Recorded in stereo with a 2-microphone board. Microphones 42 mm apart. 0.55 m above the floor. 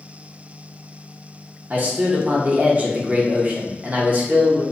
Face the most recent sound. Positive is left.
turn(degrees=-40)  # may be behind; listen again after turning